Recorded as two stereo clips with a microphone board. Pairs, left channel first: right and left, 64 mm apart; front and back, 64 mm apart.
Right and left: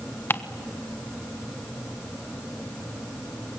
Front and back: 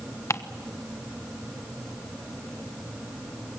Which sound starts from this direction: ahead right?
Ticking, at 0.3 s.